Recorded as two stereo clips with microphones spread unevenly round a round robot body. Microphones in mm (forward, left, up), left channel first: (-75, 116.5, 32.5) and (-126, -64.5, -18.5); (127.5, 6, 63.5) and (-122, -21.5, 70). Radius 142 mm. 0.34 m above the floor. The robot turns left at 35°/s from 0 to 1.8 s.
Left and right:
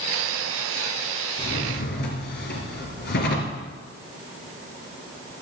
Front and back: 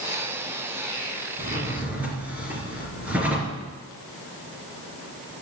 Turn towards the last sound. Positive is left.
turn(degrees=100)